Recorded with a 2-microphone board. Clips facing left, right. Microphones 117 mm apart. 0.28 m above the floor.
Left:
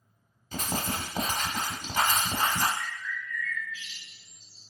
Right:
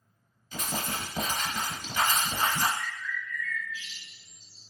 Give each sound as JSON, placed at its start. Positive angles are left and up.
{"t": 0.5, "sound": "writing", "side_deg": 45, "distance_m": 1.3}
{"t": 2.8, "sound": "a bird", "side_deg": -5, "distance_m": 2.0}